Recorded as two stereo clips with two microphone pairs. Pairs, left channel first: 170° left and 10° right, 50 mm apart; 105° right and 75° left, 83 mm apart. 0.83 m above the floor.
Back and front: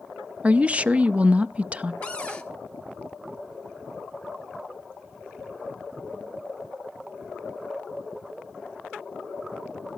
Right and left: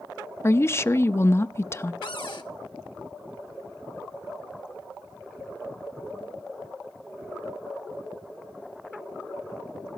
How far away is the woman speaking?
About 0.5 m.